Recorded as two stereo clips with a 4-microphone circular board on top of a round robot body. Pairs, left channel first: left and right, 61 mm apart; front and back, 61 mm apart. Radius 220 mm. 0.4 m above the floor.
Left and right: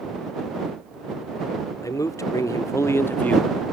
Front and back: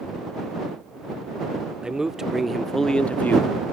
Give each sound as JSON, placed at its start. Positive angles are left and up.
{"t": 1.8, "sound": "a man speaking", "azimuth_deg": 105}